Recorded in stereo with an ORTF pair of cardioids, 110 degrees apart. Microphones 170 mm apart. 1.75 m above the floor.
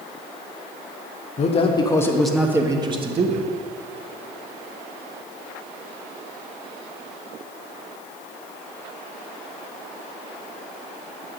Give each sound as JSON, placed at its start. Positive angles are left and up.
{"t": 1.4, "sound": "a man speaking", "azimuth_deg": 40, "distance_m": 1.5}